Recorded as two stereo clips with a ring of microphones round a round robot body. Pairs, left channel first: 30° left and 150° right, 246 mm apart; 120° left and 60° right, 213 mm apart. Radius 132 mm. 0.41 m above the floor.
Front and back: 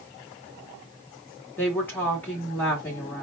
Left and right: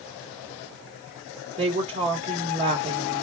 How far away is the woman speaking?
About 1.5 m.